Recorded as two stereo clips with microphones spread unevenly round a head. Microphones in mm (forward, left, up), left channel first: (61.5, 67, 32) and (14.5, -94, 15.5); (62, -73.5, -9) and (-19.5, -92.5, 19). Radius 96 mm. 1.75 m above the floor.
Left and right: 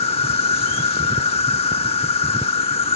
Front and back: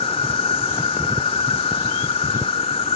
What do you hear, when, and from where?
0.0 s an insect: 35° left